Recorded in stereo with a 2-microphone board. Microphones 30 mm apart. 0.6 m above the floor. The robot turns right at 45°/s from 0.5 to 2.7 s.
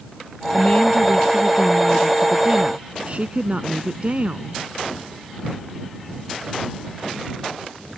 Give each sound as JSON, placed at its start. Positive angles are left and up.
{"t": 0.5, "sound": "a woman speaking", "azimuth_deg": 125}